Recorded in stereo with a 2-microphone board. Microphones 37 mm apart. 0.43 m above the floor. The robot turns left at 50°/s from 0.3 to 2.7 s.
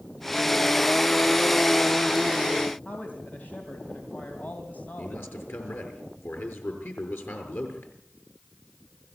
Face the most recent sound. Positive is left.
turn(degrees=70)  # may be behind; listen again after turning